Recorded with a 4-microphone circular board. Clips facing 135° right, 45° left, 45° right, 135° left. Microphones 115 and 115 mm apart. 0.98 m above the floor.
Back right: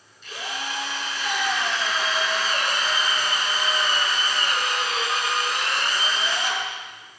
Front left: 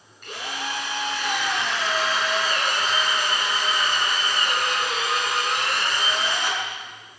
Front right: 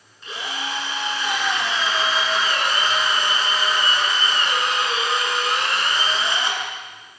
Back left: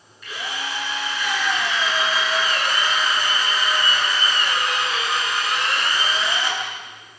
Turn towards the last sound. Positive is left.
turn(degrees=15)